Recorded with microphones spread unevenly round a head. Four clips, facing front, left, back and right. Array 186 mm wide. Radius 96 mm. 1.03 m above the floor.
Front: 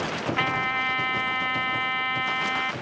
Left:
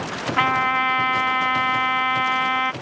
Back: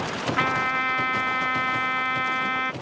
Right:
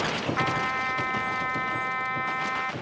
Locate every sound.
0.4 s a trumpet: 110° left